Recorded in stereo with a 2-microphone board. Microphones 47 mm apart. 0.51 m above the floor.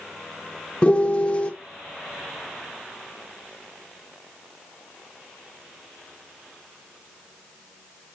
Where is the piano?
25° left (ahead or behind), 1.1 m.